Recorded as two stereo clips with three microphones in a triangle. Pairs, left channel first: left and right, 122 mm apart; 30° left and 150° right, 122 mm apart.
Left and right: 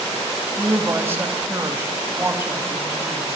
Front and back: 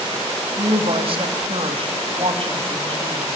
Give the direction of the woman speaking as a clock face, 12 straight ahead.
5 o'clock.